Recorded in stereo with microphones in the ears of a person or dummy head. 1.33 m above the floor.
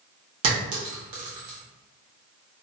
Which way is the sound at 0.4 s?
40° right (ahead or behind).